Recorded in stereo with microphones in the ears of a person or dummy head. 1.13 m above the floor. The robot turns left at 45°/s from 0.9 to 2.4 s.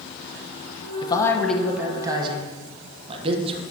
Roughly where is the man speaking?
Ahead left.